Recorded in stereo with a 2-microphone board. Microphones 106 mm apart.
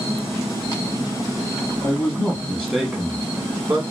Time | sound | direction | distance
1.8 | a man speaking | 30° left (ahead or behind) | 1.2 m